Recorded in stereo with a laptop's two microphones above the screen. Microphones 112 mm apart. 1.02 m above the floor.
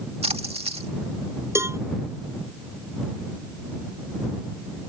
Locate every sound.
0.2 s a splash: 70° right (ahead or behind)
1.6 s a cowbell: 25° right (ahead or behind)